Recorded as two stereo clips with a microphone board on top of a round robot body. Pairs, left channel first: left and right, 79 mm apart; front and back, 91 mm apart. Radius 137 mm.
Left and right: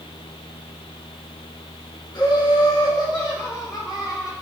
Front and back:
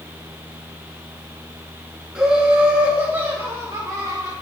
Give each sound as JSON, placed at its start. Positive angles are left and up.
{"t": 2.1, "sound": "laughter", "azimuth_deg": 100, "distance_m": 2.0}